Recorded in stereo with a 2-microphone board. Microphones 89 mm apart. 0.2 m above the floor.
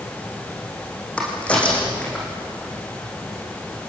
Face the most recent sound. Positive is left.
turn(degrees=15)  # may be behind; listen again after turning